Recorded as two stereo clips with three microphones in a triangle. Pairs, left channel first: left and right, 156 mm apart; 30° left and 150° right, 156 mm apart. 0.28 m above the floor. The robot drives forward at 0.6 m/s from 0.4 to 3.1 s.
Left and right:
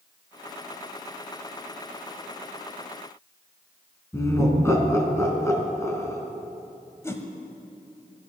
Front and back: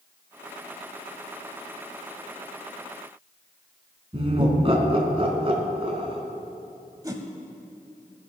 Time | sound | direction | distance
4.1 | laughter | 160° left | 3 m
7.0 | a whoosh | 155° left | 1.3 m